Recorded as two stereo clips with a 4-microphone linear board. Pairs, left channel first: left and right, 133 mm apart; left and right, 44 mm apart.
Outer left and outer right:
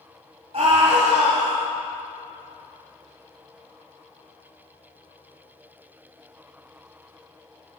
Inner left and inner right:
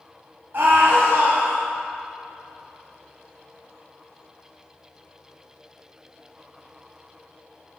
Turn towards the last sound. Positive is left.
turn(degrees=-50)  # may be behind; listen again after turning